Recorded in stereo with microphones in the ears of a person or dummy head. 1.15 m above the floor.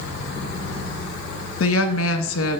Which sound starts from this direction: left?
A woman speaking, at 1.6 s.